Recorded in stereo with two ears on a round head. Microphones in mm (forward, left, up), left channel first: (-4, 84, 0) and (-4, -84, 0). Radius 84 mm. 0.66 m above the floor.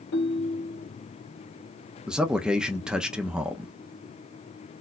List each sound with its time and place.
0.1 s a ringtone: 65° left (ahead or behind), 1.6 m
2.1 s a man speaking: 5° right (ahead or behind), 0.5 m